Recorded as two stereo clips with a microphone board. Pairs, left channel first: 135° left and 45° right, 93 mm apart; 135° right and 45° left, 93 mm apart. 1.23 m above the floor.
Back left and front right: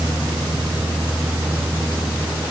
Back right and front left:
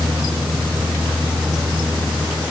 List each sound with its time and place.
Only background noise.